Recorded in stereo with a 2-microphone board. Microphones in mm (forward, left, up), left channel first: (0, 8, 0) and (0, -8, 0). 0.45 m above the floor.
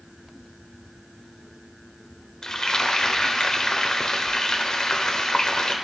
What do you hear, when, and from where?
2.4 s frying: 45° left (ahead or behind), 1.2 m